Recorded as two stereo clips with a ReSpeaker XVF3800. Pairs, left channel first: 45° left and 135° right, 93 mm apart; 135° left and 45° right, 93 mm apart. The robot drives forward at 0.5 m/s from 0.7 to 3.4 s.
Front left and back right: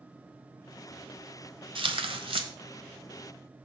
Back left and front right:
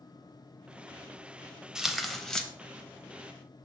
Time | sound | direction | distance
1.8 | tearing paper | 130° right | 0.8 m